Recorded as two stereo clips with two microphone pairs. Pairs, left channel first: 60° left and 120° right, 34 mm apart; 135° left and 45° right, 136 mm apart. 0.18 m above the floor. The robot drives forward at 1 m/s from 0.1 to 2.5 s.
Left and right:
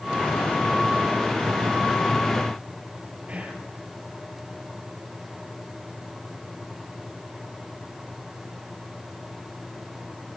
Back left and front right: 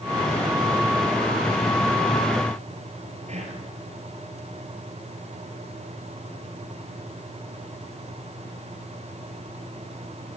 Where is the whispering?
75° right, 5 m.